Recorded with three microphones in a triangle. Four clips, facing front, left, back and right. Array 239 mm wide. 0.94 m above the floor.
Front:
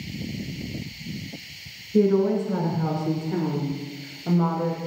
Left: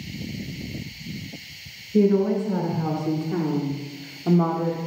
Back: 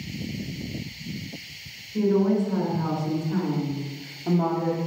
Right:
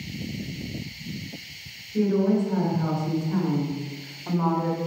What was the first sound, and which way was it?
A woman speaking, 50° left.